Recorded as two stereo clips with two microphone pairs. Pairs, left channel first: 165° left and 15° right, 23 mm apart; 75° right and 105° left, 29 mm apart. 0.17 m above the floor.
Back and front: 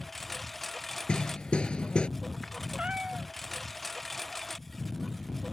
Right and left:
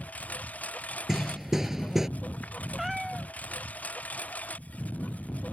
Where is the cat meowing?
20° left.